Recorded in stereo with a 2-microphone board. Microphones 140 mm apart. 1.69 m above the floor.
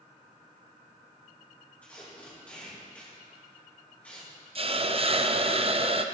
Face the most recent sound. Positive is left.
turn(degrees=-45)  # may be behind; listen again after turning